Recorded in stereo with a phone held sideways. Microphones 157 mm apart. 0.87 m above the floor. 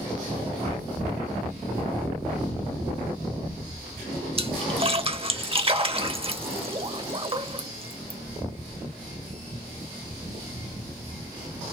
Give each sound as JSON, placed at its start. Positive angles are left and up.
{"t": 4.4, "sound": "a splash", "side_deg": -35, "distance_m": 0.7}